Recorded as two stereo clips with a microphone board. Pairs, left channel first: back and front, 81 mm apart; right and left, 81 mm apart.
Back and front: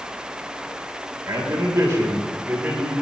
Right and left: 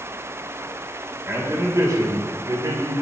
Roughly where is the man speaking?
Ahead left.